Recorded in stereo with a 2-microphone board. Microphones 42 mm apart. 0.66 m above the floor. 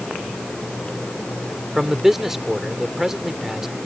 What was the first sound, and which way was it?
A man speaking, 10° right (ahead or behind).